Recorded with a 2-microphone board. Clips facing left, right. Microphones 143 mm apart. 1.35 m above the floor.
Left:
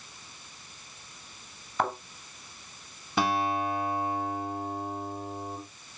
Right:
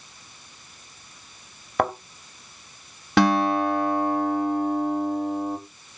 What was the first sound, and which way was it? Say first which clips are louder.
A thud: right 6 dB; 65° right (ahead or behind).